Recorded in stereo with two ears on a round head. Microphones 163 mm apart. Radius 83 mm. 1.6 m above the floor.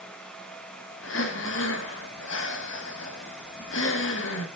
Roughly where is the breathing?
Left.